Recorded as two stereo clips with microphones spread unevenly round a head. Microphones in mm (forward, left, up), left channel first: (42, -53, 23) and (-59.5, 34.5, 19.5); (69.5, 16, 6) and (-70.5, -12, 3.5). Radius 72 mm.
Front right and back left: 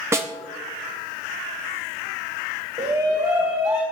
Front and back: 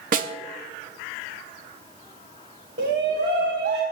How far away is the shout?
About 1.7 m.